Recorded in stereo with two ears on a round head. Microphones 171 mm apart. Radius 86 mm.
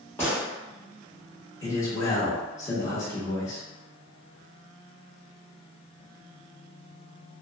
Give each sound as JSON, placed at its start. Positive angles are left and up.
{"t": 0.2, "sound": "a gunshot", "side_deg": 15, "distance_m": 1.2}
{"t": 1.6, "sound": "a man speaking", "side_deg": 15, "distance_m": 0.8}